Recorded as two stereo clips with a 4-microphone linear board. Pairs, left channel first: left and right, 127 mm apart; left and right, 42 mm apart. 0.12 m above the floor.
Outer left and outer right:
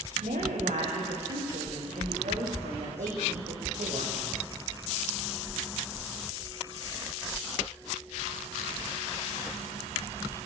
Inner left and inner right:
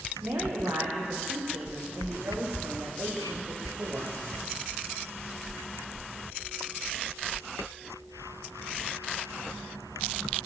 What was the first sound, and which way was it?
A woman speaking, 80° right.